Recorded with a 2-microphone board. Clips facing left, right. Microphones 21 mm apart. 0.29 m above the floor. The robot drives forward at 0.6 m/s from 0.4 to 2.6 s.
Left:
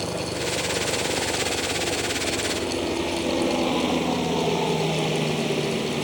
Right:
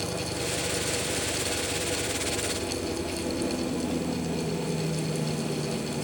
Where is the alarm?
No alarm in this recording.